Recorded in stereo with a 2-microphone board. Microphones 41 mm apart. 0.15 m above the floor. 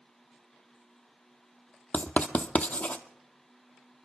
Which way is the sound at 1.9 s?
35° left (ahead or behind).